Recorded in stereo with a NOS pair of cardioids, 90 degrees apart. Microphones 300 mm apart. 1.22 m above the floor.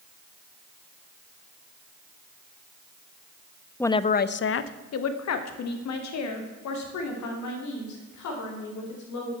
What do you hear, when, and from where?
3.8 s a woman speaking: 5° left, 0.5 m; by 9.3 s 70° left, 4.5 m